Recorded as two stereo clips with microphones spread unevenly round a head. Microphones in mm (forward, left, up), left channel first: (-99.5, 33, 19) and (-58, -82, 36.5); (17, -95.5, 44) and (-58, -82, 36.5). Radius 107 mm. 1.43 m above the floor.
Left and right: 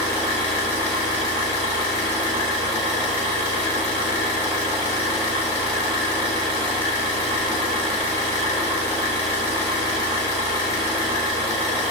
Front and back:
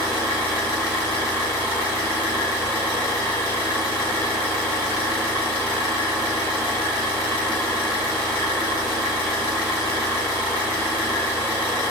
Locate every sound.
0.0 s an engine running: 140° left, 1.5 m